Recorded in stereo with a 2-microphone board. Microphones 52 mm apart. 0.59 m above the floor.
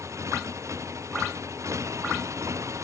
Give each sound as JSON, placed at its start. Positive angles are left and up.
{"t": 0.0, "sound": "a motorcycle", "side_deg": -75}